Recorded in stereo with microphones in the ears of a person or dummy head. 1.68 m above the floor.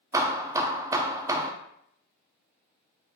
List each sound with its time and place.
0.1 s hammering: 15° right (ahead or behind), 0.5 m